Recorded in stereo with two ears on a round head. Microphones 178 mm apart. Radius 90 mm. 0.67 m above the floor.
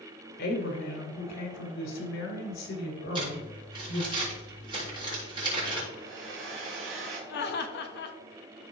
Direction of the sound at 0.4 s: 55° left (ahead or behind).